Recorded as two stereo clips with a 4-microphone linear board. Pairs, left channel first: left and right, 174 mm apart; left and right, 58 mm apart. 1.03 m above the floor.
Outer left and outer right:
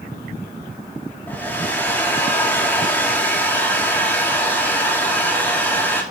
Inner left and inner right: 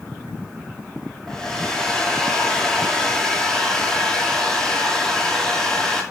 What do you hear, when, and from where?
1.3 s a hair dryer: 10° left (ahead or behind), 2.5 m